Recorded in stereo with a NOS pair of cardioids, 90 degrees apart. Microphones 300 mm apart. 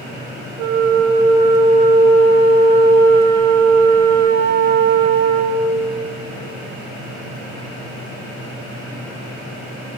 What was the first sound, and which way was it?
A flute, 65° right.